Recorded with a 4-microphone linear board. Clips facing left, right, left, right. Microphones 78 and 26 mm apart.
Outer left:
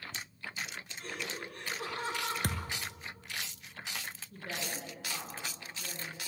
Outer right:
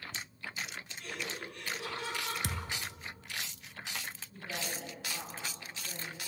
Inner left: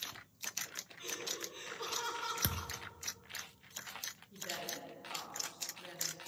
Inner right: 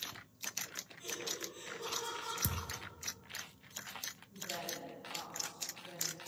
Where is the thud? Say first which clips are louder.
Outer left 2 dB, inner left 1 dB; 50° left (ahead or behind), 0.8 m.